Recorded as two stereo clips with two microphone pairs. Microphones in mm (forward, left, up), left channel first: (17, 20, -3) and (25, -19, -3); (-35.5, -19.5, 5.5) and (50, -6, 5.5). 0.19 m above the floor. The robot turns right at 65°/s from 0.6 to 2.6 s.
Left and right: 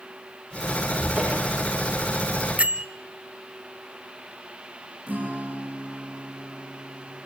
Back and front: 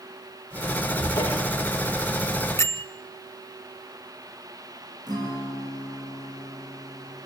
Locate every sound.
1.0 s a cupboard door: 130° right, 9.5 m; by 1.7 s 85° right, 9.5 m
2.6 s a bell: 120° right, 1.3 m
5.1 s a guitar: 30° right, 7.5 m